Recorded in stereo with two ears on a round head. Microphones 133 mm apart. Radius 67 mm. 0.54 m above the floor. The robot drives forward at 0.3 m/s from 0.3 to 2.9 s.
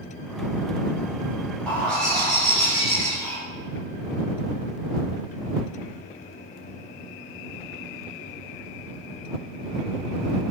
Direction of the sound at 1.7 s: 5° left (ahead or behind).